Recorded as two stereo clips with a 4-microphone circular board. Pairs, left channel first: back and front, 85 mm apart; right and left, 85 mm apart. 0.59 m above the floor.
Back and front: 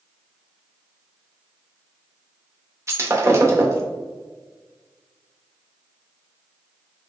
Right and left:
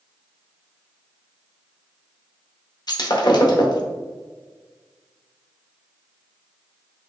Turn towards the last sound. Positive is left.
turn(degrees=-55)